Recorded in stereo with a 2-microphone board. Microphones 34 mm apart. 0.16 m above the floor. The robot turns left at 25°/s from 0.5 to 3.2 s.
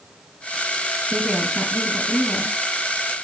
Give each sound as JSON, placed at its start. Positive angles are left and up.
{"t": 1.1, "sound": "a woman speaking", "side_deg": 15, "distance_m": 1.0}